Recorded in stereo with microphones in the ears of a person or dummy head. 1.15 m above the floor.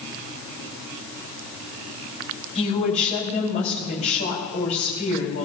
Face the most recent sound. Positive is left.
turn(degrees=40)  # may be behind; listen again after turning